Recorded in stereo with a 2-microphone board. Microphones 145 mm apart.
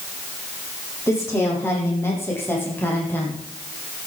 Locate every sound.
1.1 s a woman speaking: 20° left (ahead or behind), 9 m; by 3.4 s 15° left (ahead or behind), 7 m